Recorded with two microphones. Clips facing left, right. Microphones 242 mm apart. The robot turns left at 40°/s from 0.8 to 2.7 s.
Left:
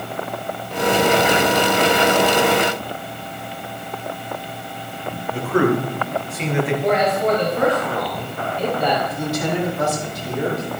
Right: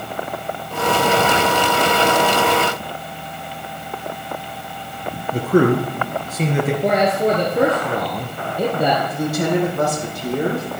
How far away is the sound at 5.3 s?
About 2.5 m.